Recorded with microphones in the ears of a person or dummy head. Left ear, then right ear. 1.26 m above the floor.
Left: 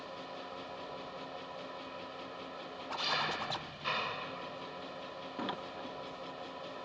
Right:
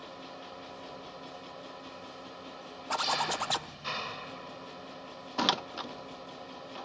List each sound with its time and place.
0.0 s an engine running: 10° left (ahead or behind)
2.9 s a zipper: 45° right (ahead or behind)
5.4 s a door slam: 55° right (ahead or behind)